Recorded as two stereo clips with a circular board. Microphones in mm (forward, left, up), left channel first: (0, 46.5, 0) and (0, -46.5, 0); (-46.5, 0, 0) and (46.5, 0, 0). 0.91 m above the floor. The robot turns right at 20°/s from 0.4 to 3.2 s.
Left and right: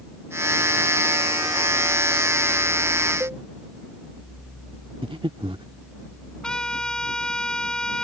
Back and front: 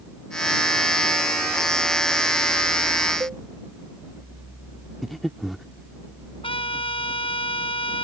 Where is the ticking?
No ticking in this recording.